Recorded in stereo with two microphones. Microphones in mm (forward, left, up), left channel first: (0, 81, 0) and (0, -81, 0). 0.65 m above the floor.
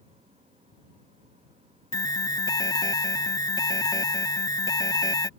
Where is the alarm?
25° left (ahead or behind).